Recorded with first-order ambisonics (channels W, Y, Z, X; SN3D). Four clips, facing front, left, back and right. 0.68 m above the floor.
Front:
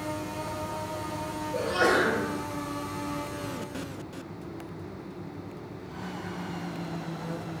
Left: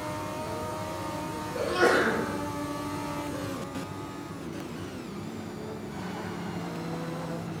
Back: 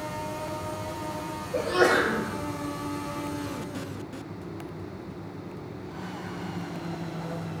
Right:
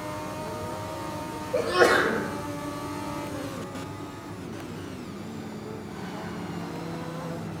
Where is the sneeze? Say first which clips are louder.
Right 3 dB, back 2 dB; 105° right, 2.5 m.